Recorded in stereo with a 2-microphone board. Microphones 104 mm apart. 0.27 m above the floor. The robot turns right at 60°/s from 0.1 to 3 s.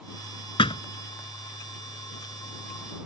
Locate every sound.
0.6 s a thud: 55° left (ahead or behind); by 0.8 s 65° left (ahead or behind)